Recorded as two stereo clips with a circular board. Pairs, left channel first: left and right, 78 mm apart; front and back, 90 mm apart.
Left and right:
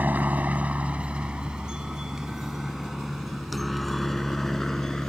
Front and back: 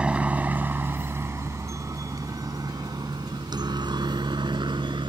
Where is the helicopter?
120° right; by 5.1 s 175° left.